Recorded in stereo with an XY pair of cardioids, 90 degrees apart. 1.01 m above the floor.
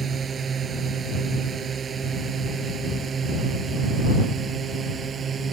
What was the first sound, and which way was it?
A drone, 50° right.